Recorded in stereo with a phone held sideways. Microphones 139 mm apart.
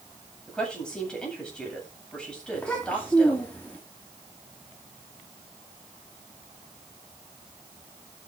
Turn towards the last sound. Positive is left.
turn(degrees=10)  # may be behind; listen again after turning